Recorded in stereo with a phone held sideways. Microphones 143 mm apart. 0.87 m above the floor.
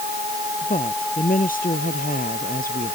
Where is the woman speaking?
75° left (ahead or behind).